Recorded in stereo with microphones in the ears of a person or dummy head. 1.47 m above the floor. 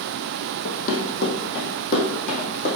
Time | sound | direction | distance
0.7 | running footsteps | 50° left (ahead or behind) | 2.5 m